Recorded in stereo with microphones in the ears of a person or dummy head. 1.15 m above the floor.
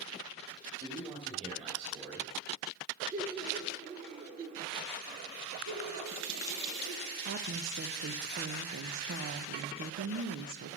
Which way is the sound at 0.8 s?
40° right (ahead or behind).